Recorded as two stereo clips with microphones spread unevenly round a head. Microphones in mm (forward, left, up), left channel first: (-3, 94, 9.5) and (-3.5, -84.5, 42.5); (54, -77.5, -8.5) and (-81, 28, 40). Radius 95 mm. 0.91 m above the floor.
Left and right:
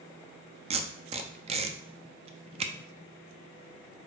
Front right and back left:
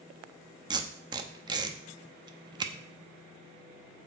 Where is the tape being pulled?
150° right, 0.8 m.